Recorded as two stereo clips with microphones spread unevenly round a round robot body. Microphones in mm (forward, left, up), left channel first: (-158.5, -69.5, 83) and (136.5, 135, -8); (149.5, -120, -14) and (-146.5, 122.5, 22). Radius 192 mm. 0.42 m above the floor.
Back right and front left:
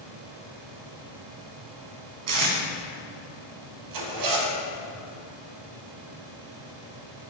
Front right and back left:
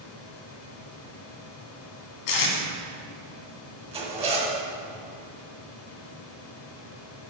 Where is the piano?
I don't hear a piano.